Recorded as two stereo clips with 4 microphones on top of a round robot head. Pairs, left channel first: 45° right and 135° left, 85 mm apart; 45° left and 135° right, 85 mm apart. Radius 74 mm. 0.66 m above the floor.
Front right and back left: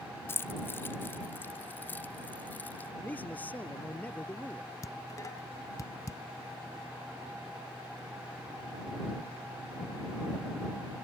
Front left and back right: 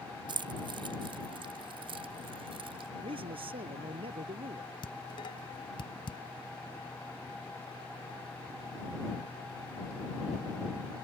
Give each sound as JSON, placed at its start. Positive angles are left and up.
{"t": 0.3, "sound": "keys jangling", "azimuth_deg": -105}
{"t": 3.0, "sound": "a man speaking", "azimuth_deg": -115}
{"t": 4.8, "sound": "dishes clattering", "azimuth_deg": 10}